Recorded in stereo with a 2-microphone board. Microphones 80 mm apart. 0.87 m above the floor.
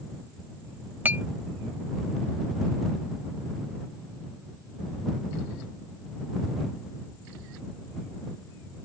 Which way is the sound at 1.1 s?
25° right (ahead or behind).